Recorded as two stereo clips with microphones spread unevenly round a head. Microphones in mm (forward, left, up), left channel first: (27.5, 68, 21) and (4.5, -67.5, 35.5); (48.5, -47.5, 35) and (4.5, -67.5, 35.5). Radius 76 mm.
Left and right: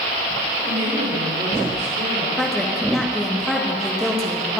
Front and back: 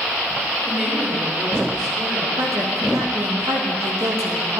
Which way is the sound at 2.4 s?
170° left.